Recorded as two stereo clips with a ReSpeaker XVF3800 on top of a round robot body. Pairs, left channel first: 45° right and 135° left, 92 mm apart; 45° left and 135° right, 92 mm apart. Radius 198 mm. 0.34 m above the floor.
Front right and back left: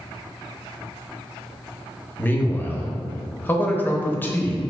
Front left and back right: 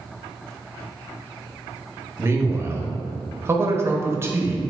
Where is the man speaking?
95° right, 0.9 m.